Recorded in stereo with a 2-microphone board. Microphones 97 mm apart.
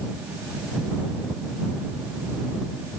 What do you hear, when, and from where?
Only background noise.